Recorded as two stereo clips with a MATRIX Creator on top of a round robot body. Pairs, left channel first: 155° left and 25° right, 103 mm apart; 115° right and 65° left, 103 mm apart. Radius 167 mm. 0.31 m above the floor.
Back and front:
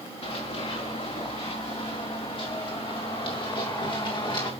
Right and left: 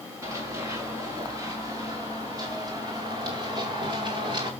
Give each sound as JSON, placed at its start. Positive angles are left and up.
{"t": 0.2, "sound": "running footsteps", "azimuth_deg": 130, "distance_m": 6.5}